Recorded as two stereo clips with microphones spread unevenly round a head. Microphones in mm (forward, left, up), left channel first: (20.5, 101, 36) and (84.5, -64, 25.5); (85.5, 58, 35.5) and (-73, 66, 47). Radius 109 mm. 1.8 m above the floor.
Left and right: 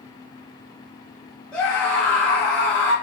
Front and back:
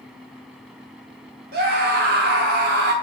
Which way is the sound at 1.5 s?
165° right.